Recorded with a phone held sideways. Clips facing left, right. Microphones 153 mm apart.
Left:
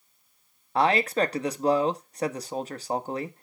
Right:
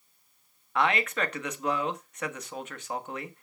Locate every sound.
0.8 s a man speaking: 35° left (ahead or behind), 1.2 m